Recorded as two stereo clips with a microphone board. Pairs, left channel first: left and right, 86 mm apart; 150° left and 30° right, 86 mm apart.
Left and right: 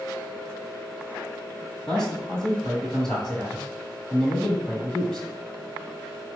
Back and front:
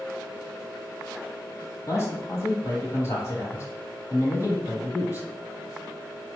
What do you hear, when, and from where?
1.9 s a man speaking: 170° left, 1.2 m